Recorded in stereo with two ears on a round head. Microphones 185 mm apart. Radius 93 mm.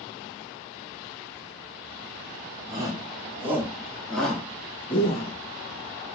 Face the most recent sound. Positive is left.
turn(degrees=35)  # may be behind; listen again after turning